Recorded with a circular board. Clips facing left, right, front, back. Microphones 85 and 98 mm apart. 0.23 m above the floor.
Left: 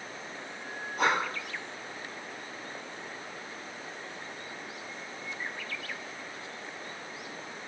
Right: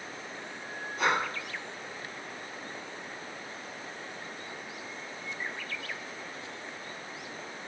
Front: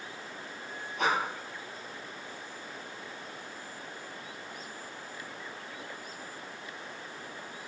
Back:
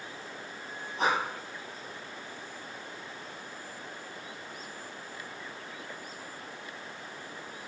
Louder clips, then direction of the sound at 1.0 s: Left 1 dB, back 1 dB; 125° left.